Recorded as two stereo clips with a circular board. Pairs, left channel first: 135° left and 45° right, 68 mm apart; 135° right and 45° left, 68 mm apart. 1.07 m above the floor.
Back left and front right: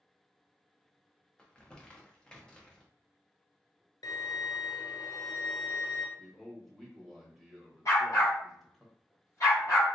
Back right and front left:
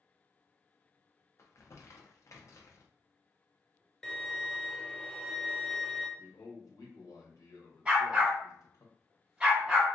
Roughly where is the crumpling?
Behind right.